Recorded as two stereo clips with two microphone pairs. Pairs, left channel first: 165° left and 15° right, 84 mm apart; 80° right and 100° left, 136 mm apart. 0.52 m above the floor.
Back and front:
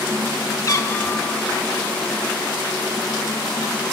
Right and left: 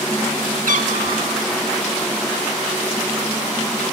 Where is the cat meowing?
115° left, 0.9 m; by 1.7 s 85° left, 1.7 m.